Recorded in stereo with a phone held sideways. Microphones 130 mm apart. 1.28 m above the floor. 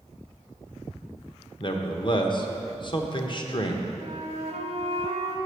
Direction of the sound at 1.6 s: 40° left (ahead or behind).